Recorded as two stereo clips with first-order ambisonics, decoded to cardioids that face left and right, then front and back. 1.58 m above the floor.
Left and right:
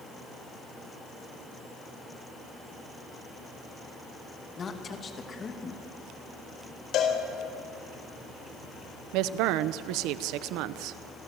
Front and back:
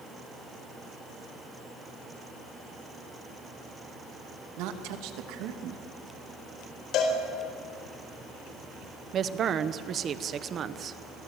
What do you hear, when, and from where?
4.6 s a woman speaking: 155° left, 2 m
6.9 s a cowbell: 45° left, 4 m
9.1 s a woman speaking: 120° right, 1.0 m